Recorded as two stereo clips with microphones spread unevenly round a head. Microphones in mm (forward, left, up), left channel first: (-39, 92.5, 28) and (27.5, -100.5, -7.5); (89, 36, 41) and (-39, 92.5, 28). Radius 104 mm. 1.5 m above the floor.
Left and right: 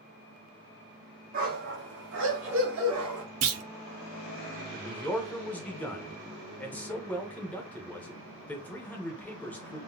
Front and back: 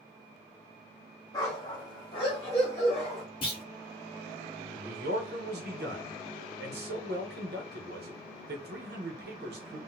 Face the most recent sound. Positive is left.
turn(degrees=-170)